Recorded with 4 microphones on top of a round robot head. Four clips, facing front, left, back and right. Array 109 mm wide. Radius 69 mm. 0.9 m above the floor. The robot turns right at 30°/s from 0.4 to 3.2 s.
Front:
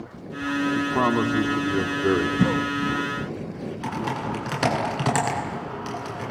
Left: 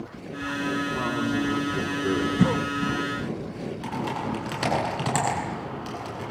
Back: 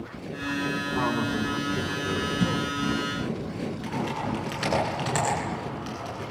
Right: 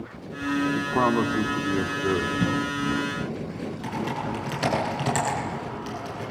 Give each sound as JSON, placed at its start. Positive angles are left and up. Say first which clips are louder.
{"t": 0.8, "sound": "a man speaking", "louder": "right 6 dB, front 6 dB", "azimuth_deg": -55, "distance_m": 2.0}
{"t": 2.4, "sound": "a cough", "louder": "left 2 dB, front 4 dB", "azimuth_deg": 55, "distance_m": 1.4}
{"t": 3.8, "sound": "typing on a keyboard", "louder": "even, front 4 dB", "azimuth_deg": 5, "distance_m": 9.0}